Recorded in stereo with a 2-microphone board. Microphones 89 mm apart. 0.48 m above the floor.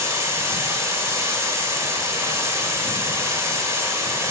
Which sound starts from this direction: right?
Running water, at 0.0 s.